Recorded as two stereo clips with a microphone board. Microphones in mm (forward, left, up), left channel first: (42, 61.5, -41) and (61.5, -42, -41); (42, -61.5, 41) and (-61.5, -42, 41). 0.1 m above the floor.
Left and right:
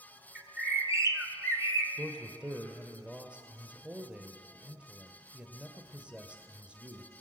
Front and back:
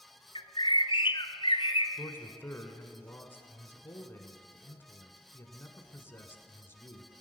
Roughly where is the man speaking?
Ahead.